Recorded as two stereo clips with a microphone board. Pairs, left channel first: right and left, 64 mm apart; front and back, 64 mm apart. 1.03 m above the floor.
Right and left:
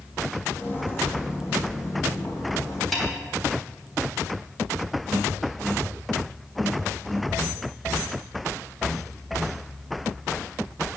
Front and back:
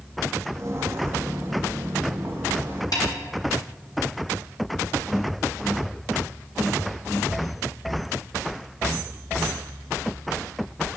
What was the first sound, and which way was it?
Footsteps, 140° right.